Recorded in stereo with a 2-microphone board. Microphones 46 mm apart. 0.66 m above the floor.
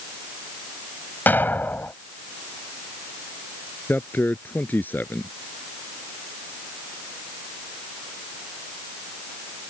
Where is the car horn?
No car horn in this recording.